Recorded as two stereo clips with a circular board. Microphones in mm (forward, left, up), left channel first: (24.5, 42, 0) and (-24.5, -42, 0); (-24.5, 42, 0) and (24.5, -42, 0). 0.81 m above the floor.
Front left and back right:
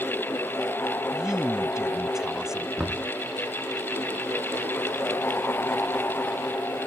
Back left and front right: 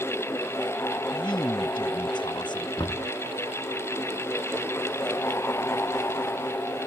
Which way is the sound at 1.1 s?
155° left.